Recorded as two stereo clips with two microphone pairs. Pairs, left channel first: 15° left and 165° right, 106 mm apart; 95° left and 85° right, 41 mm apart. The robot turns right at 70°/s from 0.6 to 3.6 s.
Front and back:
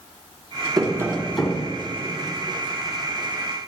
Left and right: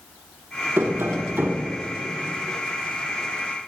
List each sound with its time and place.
0.8 s tapping: 115° right, 1.9 m; by 1.7 s 45° right, 1.9 m